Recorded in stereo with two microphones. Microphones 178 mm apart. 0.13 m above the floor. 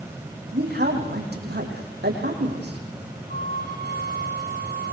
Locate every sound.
0.5 s a man speaking: 65° right (ahead or behind), 7.5 m
3.3 s a flute: 65° right (ahead or behind), 4.5 m